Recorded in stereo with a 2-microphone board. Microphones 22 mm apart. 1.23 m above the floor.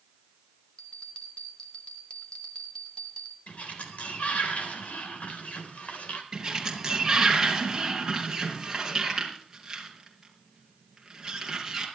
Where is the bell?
55° left (ahead or behind), 2.5 m.